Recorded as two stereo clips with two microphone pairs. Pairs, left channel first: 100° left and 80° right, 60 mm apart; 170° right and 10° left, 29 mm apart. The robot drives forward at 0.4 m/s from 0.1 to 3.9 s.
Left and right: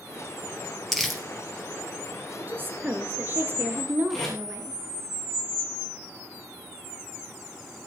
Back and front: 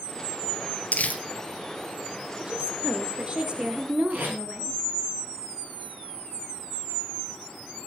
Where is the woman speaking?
35° right, 2 m; by 4.8 s 45° right, 1.8 m.